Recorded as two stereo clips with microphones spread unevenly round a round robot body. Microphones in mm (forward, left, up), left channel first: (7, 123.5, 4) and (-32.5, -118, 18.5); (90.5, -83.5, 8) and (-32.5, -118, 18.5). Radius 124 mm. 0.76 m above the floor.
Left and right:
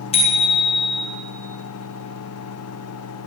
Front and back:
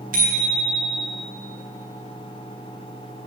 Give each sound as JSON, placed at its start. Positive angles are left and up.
{"t": 0.1, "sound": "a bicycle bell", "azimuth_deg": 145, "distance_m": 2.0}